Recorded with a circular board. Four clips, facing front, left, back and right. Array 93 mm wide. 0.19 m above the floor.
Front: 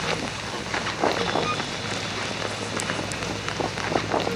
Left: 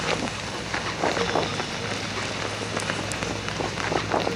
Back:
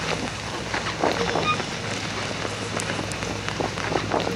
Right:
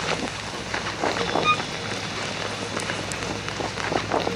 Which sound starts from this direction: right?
A violin, at 1.4 s.